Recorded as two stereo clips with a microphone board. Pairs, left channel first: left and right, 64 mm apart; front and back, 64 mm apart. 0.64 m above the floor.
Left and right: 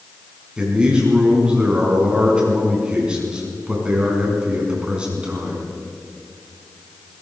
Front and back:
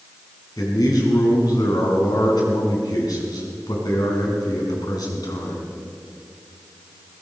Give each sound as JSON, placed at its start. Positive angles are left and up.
{"t": 0.6, "sound": "a man speaking", "azimuth_deg": -15, "distance_m": 5.0}